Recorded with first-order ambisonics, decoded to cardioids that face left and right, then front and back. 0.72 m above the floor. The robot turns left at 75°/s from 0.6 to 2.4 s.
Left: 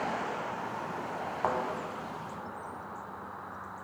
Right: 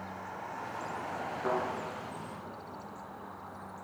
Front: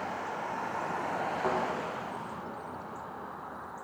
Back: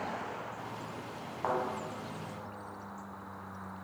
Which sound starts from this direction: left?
A thud, at 1.4 s.